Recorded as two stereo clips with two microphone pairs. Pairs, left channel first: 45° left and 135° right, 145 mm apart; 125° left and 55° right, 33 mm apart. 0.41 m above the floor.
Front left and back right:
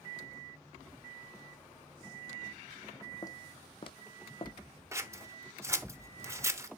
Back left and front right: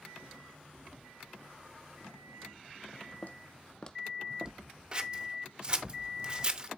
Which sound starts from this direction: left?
Footsteps, at 3.2 s.